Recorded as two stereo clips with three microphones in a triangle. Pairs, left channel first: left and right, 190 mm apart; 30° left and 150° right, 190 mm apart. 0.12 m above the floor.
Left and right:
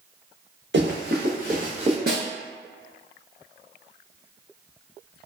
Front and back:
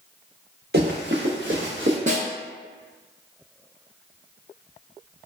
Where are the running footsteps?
115° right, 1.2 m; by 2.0 s 150° right, 1.2 m.